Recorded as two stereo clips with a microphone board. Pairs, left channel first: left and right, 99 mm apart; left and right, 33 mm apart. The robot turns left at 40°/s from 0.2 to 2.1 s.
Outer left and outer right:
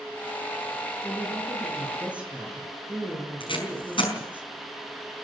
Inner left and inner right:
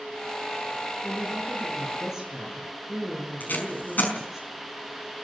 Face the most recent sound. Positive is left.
turn(degrees=55)  # may be behind; listen again after turning